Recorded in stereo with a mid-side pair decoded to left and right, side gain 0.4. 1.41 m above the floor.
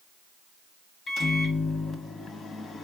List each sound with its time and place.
1.1 s a microwave: 60° left, 1.2 m